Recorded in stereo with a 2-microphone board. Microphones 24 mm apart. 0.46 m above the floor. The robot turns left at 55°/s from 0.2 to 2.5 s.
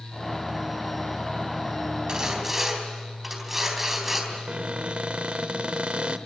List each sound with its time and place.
2.1 s sawing: 30° right (ahead or behind), 3.5 m; by 4.2 s 10° right (ahead or behind), 3.5 m
4.3 s a cupboard door: 50° right (ahead or behind), 0.8 m